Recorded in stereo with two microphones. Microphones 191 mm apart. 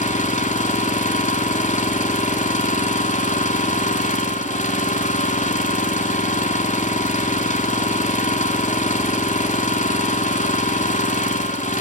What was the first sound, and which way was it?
An engine running, 40° left (ahead or behind).